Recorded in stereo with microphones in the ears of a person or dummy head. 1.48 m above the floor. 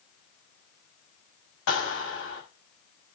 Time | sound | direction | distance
1.7 | a clap | 80° left | 7 m